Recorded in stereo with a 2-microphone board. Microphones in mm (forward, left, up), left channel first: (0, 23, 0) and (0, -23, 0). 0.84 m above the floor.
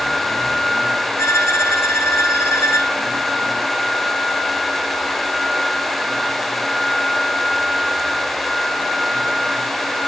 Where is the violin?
75° left (ahead or behind), 1.8 m.